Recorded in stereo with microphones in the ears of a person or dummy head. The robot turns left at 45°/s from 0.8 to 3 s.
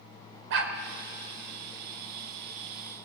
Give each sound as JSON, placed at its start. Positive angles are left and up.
{"t": 0.5, "sound": "a dog barking", "side_deg": -65, "distance_m": 1.9}